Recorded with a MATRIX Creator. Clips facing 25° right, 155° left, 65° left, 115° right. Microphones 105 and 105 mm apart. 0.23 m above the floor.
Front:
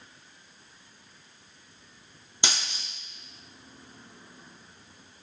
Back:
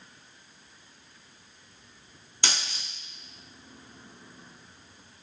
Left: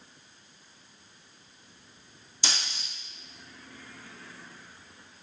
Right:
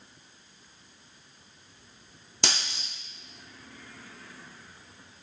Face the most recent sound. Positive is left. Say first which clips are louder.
# even, right 3 dB
turn(degrees=-90)